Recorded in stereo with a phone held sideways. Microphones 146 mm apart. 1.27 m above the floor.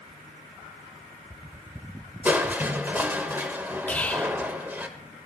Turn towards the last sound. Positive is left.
turn(degrees=10)  # may be behind; listen again after turning